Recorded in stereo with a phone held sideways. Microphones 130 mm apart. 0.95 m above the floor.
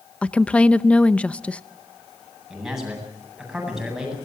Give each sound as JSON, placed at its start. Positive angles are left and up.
{"t": 0.2, "sound": "a woman speaking", "side_deg": 10, "distance_m": 0.6}
{"t": 2.5, "sound": "a man speaking", "side_deg": -5, "distance_m": 8.5}